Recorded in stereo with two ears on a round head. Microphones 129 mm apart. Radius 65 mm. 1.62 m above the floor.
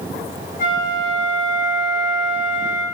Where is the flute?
60° left (ahead or behind), 7.5 m.